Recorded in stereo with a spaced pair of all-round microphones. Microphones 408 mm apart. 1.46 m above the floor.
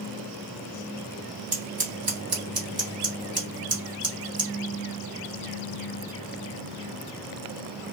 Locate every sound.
1.5 s scissors: 60° right (ahead or behind), 1.4 m